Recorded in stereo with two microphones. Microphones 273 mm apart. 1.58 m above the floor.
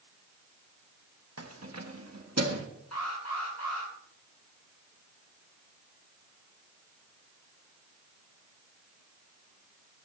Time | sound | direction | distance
1.4 | keys jangling | 60° right (ahead or behind) | 1.3 m
2.9 | an alarm | 75° left (ahead or behind) | 9 m